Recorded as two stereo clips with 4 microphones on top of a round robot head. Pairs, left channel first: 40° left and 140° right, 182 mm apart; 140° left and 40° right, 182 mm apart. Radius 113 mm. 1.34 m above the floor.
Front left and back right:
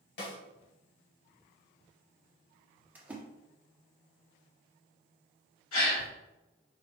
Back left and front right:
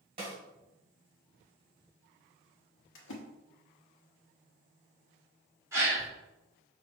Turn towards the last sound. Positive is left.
turn(degrees=40)